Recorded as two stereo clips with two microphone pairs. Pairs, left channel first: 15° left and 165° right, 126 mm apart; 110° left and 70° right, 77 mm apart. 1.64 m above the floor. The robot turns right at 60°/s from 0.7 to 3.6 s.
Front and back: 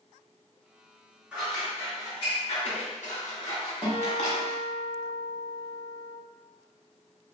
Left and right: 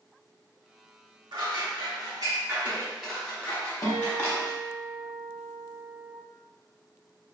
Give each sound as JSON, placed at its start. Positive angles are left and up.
{"t": 1.3, "sound": "scissors", "azimuth_deg": -85, "distance_m": 0.9}
{"t": 3.8, "sound": "a guitar", "azimuth_deg": 130, "distance_m": 1.2}